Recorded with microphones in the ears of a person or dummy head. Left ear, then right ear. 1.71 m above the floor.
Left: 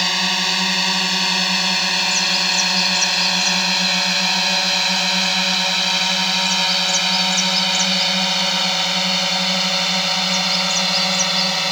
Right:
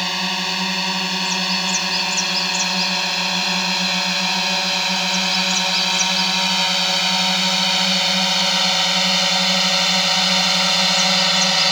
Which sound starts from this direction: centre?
A drone, at 0.0 s.